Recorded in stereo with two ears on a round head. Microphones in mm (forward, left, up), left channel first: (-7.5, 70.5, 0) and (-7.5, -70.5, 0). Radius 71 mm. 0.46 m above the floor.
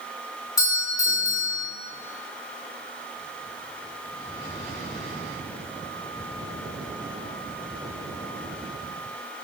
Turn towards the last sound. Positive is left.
turn(degrees=20)  # may be behind; listen again after turning